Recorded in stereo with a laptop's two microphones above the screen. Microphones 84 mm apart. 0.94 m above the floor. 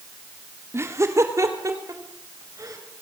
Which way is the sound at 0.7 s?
30° right (ahead or behind).